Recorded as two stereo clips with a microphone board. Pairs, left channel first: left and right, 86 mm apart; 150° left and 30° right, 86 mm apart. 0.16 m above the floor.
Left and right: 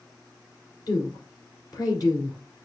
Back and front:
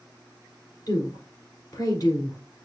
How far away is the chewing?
No chewing in this recording.